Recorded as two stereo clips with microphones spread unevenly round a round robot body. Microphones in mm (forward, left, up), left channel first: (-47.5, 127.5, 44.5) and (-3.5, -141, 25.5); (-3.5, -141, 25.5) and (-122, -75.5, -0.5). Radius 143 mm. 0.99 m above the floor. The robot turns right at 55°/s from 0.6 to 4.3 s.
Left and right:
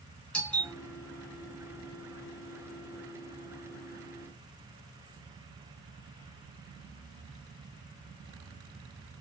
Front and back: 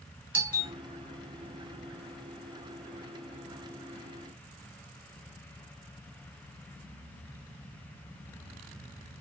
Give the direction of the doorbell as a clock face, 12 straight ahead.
6 o'clock.